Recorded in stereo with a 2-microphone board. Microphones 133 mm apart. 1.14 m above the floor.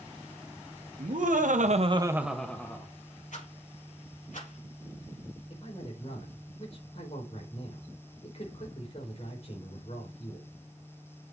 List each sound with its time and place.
1.0 s laughter: 80° right, 1.5 m; by 2.9 s 20° left (ahead or behind), 1.5 m
3.3 s a rattle: 75° left (ahead or behind), 4 m
5.5 s a man speaking: 50° left (ahead or behind), 4 m